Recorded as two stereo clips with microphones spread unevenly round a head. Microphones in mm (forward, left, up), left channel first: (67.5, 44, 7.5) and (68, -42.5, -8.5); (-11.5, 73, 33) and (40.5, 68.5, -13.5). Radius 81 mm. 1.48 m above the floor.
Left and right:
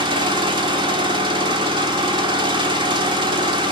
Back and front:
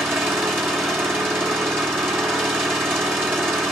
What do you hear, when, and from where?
0.0 s an engine running: 120° right, 1.3 m